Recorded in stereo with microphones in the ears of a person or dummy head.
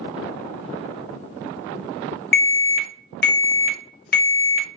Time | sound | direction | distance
2.3 | an alarm | 50° left (ahead or behind) | 0.5 m